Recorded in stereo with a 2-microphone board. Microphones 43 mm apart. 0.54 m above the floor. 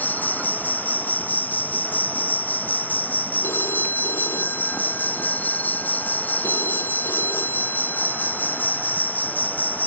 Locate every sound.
0.0 s an insect: 45° left (ahead or behind)
3.4 s a phone ringing: 85° left